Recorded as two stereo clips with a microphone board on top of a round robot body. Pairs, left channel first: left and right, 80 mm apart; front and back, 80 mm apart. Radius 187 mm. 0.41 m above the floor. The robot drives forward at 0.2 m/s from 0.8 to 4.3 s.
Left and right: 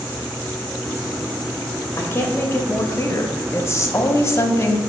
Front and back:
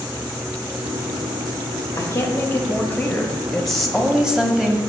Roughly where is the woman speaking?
Ahead left.